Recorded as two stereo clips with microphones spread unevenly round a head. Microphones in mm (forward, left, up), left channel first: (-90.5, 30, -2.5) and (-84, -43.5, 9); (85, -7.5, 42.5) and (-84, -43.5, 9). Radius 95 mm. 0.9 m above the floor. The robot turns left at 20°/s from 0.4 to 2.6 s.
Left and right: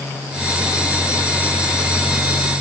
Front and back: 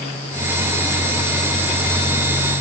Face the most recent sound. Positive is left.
No sound to turn to.